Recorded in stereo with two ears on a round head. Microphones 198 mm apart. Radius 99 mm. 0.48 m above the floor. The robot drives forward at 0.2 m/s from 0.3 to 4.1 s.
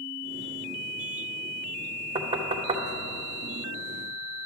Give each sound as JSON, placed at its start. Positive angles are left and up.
{"t": 2.1, "sound": "knocking", "side_deg": -30, "distance_m": 0.7}